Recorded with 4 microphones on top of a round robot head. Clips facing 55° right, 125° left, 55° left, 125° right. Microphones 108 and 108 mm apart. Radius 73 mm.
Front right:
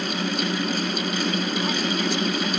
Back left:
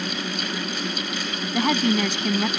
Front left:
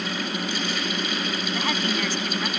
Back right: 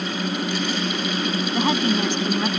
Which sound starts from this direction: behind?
A woman speaking, at 1.5 s.